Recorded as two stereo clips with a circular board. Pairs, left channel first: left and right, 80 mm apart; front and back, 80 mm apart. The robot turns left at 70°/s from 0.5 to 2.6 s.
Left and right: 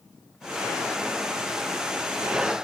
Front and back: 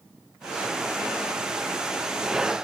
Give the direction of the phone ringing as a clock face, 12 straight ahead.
I don't hear a phone ringing.